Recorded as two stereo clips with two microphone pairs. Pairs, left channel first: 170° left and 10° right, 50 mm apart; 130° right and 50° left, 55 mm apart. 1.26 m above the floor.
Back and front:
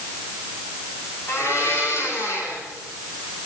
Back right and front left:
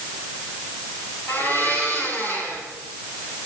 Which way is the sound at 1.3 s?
Straight behind.